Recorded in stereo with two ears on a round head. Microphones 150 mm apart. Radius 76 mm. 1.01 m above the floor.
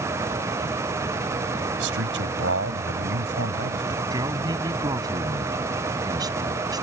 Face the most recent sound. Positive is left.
turn(degrees=-25)  # may be behind; listen again after turning